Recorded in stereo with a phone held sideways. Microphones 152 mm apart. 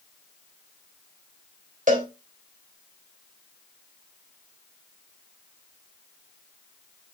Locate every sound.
1.9 s a cowbell: 65° right (ahead or behind), 3.5 m